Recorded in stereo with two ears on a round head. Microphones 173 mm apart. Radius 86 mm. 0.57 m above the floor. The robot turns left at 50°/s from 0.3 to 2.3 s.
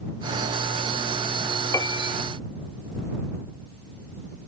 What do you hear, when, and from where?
1.7 s a piano: 15° left (ahead or behind); by 2.2 s 35° left (ahead or behind)